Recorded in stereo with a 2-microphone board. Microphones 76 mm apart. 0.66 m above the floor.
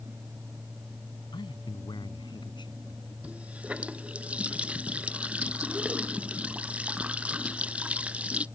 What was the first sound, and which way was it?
A man speaking, 80° left.